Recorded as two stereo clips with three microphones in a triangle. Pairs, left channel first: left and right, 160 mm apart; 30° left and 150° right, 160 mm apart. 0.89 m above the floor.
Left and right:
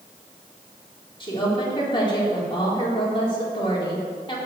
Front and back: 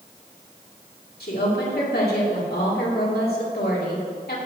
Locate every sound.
1.2 s a woman speaking: 30° left, 1.8 m